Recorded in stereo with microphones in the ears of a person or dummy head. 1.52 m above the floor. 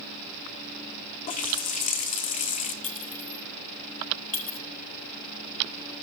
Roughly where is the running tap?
Left.